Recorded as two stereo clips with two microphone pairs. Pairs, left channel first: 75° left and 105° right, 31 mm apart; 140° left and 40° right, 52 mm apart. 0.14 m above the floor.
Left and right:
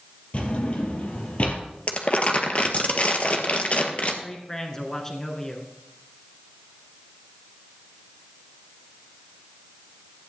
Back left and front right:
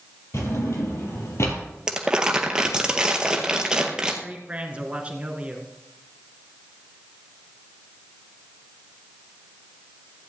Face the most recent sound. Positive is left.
turn(degrees=10)